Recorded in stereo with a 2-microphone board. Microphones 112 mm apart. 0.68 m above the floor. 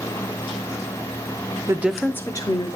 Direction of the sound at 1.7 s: 25° right (ahead or behind).